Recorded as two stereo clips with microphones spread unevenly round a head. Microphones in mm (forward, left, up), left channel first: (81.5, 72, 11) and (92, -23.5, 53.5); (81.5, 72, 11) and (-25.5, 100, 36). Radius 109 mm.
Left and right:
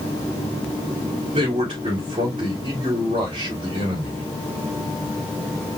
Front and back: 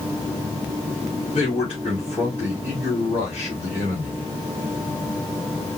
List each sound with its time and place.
1.3 s a man speaking: 110° right, 3 m